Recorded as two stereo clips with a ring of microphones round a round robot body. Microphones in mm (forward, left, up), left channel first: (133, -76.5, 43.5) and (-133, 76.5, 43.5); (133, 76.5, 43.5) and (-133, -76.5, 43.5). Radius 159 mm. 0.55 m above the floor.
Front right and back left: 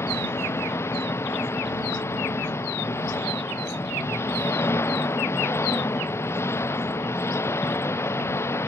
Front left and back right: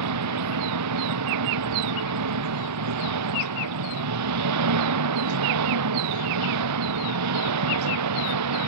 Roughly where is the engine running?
Right.